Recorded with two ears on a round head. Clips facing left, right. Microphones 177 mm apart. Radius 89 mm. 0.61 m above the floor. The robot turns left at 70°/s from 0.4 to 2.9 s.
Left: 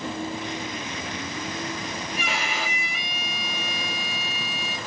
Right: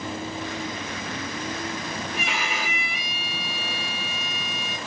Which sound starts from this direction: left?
A violin, at 2.1 s.